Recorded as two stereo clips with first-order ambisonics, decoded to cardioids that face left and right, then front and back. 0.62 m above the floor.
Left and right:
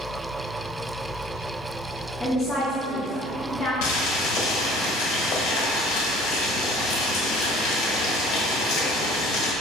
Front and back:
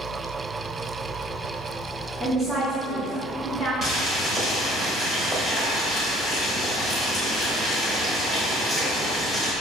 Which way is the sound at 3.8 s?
110° left.